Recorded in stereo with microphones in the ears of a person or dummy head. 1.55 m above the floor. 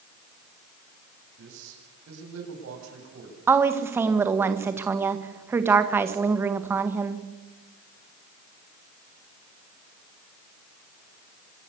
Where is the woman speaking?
10° right (ahead or behind), 1.8 m.